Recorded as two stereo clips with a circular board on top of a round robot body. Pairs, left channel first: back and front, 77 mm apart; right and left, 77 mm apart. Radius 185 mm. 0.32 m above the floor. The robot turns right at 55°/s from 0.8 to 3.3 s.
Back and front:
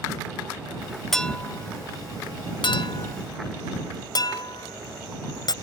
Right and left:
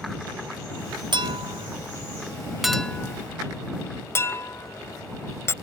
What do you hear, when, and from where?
1.1 s a clink: 95° left; by 5.5 s 145° right